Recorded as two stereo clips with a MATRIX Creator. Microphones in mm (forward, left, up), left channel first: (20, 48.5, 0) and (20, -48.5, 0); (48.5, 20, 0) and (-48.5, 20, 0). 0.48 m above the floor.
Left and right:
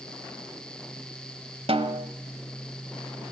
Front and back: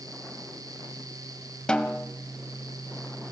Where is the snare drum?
80° right, 1.6 m.